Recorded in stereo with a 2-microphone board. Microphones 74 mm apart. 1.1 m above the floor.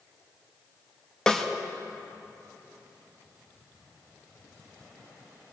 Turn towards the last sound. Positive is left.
turn(degrees=10)  # may be behind; listen again after turning